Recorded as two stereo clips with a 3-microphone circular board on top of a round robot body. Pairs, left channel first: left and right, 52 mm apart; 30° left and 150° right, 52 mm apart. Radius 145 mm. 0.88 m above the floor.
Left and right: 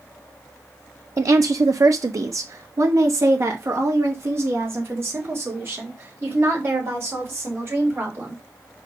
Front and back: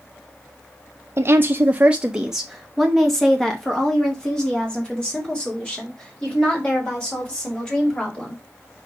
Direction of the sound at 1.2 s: 110° right.